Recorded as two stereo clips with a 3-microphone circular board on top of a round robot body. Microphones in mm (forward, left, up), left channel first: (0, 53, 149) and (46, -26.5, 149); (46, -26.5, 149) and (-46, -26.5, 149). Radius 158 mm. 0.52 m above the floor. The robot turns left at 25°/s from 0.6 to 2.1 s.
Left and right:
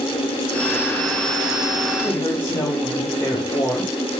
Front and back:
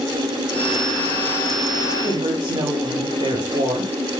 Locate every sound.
2.0 s a woman speaking: straight behind, 4 m